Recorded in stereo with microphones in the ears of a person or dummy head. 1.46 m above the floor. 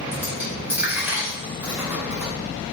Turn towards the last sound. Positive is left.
turn(degrees=-5)  # may be behind; listen again after turning